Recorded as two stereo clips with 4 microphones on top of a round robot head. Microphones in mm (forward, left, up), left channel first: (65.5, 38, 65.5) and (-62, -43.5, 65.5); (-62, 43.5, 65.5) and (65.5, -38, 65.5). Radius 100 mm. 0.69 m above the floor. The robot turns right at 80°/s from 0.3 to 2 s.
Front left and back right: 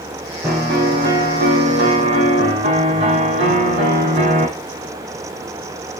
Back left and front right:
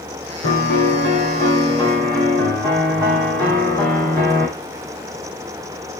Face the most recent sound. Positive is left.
turn(degrees=-100)